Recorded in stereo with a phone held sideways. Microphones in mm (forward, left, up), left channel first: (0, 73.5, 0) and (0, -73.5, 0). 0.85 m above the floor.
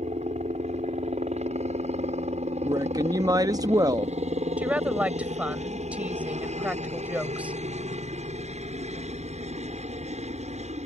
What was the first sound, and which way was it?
A helicopter, 50° right (ahead or behind).